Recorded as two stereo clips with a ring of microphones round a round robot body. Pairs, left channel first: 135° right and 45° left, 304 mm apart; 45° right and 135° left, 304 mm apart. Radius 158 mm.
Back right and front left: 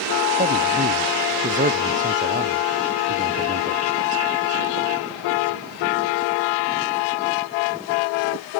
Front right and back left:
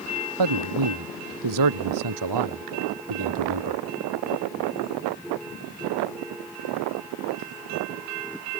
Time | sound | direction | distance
0.4 | a man speaking | 110° left | ?